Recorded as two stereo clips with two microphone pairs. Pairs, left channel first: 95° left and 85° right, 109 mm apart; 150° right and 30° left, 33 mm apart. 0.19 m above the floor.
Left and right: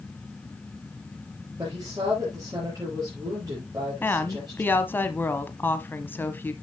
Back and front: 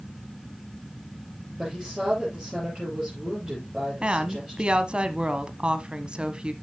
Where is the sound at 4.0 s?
45° left, 1.2 m.